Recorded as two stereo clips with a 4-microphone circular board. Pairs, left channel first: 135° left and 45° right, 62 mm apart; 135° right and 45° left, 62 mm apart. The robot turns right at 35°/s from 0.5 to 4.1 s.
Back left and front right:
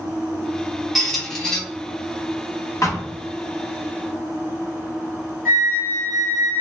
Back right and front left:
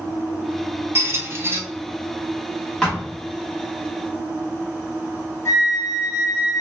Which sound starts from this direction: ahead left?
A squeak, at 0.9 s.